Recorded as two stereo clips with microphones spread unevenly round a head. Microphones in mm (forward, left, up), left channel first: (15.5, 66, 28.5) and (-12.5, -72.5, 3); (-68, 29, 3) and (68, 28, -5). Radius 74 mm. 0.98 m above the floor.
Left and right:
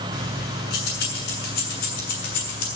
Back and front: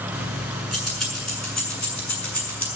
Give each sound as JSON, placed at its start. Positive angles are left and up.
{"t": 0.1, "sound": "keys jangling", "azimuth_deg": 85, "distance_m": 7.5}